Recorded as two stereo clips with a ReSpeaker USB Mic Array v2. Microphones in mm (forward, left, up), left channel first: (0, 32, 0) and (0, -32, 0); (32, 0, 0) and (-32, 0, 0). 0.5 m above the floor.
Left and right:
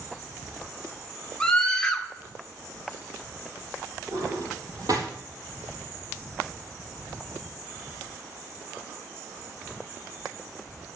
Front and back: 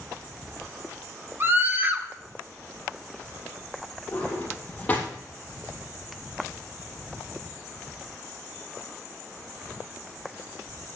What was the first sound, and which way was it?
A scream, 165° left.